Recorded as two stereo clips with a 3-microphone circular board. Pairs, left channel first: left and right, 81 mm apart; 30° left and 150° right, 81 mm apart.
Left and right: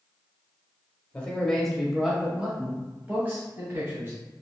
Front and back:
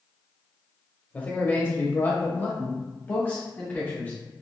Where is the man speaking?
45° left, 1.0 m; by 4.1 s 35° right, 2 m.